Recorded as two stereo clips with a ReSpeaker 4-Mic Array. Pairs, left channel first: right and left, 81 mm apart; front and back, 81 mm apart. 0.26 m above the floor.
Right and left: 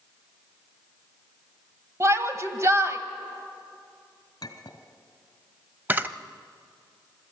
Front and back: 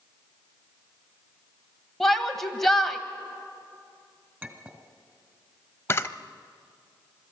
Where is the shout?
85° left, 1.3 m.